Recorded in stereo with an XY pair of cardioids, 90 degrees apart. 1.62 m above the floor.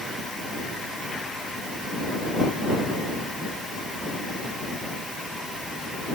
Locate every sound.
Only background noise.